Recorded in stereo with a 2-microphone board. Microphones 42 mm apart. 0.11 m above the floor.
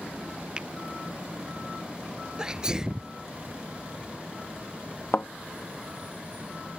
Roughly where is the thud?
Left.